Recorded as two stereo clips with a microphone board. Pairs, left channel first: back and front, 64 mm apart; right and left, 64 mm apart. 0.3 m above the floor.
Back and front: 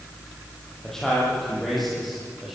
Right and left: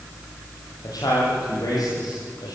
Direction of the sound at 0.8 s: 95° right.